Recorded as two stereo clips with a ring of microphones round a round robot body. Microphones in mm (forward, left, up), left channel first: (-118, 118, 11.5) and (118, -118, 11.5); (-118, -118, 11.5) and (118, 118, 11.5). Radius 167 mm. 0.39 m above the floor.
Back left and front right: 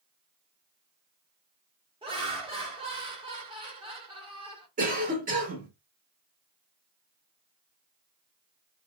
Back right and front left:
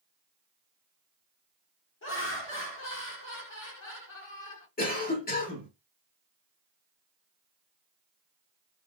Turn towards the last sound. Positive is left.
turn(degrees=-90)